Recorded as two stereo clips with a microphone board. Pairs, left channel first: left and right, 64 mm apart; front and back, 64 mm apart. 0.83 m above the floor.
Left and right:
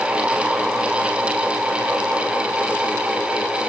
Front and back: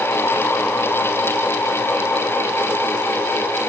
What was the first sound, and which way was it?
Only background noise.